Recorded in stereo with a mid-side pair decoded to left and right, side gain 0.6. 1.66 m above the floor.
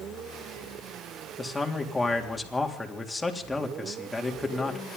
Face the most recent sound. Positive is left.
turn(degrees=10)